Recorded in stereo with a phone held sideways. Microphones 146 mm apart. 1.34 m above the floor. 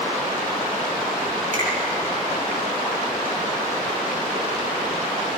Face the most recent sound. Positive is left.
turn(degrees=-65)  # may be behind; listen again after turning